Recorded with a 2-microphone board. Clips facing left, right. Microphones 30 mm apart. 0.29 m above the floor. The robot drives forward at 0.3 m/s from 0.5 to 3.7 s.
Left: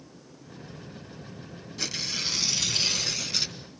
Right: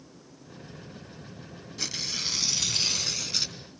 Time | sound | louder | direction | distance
1.8 | tearing paper | left 1 dB | centre (ahead or behind) | 1.3 m